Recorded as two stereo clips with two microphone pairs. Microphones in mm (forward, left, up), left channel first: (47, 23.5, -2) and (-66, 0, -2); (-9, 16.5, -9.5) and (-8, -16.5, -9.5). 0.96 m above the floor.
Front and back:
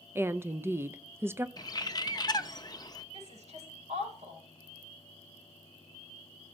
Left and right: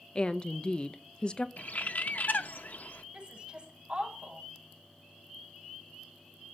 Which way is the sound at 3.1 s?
150° right.